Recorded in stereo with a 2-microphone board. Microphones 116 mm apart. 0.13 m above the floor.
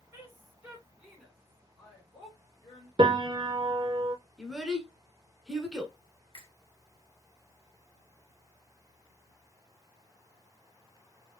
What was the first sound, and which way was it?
A woman speaking, 20° right (ahead or behind).